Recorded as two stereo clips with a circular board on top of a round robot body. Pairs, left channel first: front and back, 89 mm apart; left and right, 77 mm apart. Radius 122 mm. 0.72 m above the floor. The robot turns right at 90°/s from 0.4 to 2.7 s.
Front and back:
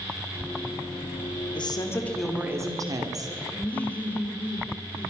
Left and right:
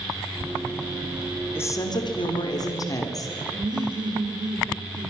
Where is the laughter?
70° right, 3 m.